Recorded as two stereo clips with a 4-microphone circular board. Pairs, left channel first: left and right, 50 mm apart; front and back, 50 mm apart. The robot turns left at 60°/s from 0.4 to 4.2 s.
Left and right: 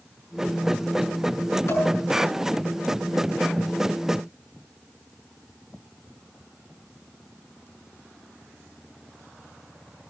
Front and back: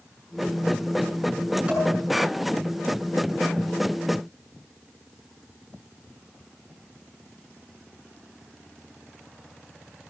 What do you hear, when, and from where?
1.7 s dishes clattering: 110° left, 7.5 m; by 1.9 s 100° left, 7.5 m